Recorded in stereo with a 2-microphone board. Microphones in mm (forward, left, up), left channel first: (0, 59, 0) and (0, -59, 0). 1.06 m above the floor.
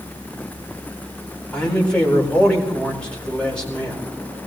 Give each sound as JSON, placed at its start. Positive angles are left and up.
{"t": 1.5, "sound": "a man speaking", "side_deg": 10, "distance_m": 4.0}